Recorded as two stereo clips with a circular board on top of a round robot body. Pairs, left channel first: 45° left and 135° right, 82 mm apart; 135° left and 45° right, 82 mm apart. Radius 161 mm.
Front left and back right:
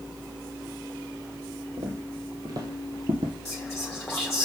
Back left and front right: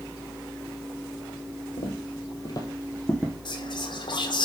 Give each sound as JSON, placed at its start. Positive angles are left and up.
{"t": 1.8, "sound": "footsteps", "azimuth_deg": 165, "distance_m": 1.9}
{"t": 3.5, "sound": "whispering", "azimuth_deg": 130, "distance_m": 1.4}